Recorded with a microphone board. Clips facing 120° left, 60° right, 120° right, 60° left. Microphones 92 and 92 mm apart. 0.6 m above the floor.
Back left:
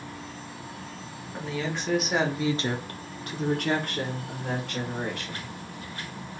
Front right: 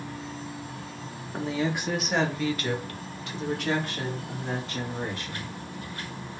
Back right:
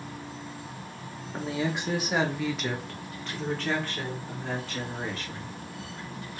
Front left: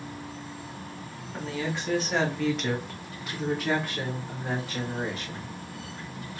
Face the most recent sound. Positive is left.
turn(degrees=130)